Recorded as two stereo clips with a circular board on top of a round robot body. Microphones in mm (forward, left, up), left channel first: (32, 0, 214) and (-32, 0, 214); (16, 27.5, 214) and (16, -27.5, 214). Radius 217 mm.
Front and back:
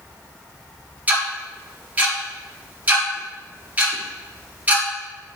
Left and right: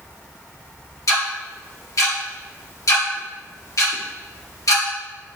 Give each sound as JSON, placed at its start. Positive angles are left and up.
{"t": 1.1, "sound": "ticking", "azimuth_deg": 115, "distance_m": 2.0}